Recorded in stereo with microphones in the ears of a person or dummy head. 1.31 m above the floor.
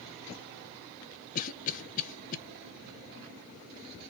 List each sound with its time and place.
1.4 s a cough: 45° left (ahead or behind), 1.0 m